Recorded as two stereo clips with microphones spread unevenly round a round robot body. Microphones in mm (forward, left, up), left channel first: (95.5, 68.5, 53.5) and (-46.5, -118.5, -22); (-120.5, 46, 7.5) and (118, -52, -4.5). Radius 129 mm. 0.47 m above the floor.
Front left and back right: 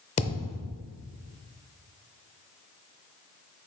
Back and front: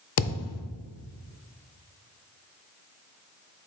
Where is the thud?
125° left, 0.6 m.